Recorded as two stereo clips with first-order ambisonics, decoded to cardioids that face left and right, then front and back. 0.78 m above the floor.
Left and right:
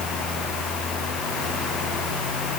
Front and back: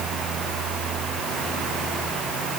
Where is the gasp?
No gasp in this recording.